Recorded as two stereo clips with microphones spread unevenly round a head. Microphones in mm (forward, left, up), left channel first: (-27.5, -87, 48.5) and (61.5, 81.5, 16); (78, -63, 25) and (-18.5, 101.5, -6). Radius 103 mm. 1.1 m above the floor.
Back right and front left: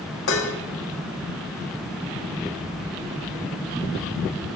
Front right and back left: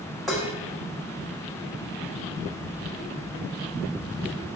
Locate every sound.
0.3 s dishes clattering: 150° right, 1.1 m